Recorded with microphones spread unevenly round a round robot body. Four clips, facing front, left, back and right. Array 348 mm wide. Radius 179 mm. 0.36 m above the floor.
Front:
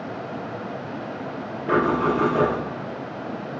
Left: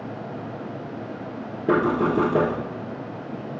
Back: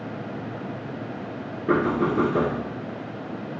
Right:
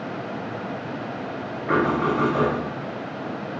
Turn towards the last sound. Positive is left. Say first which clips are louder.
# left 1 dB, front 1 dB
turn(degrees=115)